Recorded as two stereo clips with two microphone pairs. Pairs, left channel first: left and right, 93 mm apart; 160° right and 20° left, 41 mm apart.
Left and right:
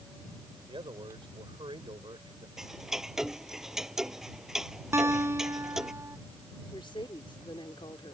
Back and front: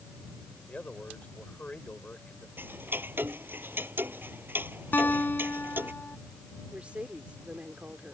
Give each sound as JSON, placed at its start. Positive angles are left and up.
{"t": 0.7, "sound": "a man speaking", "azimuth_deg": -105}
{"t": 2.6, "sound": "ticking", "azimuth_deg": -5}
{"t": 4.9, "sound": "a guitar", "azimuth_deg": -140}
{"t": 6.7, "sound": "a woman speaking", "azimuth_deg": 80}